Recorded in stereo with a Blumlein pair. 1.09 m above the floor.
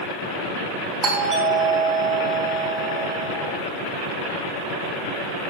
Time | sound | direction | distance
1.0 | a doorbell | 30° right | 4 m